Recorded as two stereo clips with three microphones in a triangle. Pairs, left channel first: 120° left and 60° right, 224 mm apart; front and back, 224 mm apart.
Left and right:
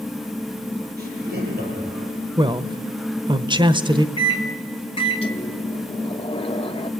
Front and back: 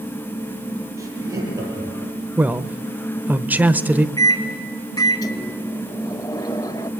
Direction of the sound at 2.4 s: 105° right.